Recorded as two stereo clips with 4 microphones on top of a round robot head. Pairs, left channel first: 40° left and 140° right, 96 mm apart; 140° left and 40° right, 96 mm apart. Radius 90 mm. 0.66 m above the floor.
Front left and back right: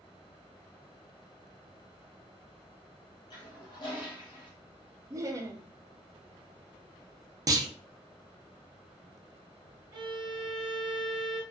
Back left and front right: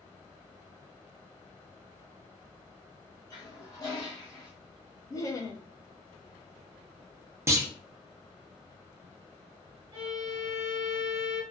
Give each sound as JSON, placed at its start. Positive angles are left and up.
{"t": 3.3, "sound": "a toilet flushing", "azimuth_deg": 85, "distance_m": 0.7}
{"t": 5.1, "sound": "laughter", "azimuth_deg": 180, "distance_m": 0.7}
{"t": 7.5, "sound": "a clunk", "azimuth_deg": -95, "distance_m": 0.6}
{"t": 9.9, "sound": "a violin", "azimuth_deg": -95, "distance_m": 1.1}